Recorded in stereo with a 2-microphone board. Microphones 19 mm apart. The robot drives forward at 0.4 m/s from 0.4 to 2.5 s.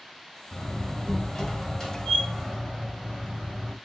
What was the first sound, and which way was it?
A door slam, 40° left (ahead or behind).